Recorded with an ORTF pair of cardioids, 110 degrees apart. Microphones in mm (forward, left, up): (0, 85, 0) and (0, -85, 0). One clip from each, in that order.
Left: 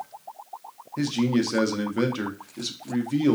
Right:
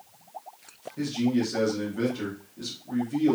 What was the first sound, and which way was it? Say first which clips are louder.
A man speaking: left 3 dB; 45° left.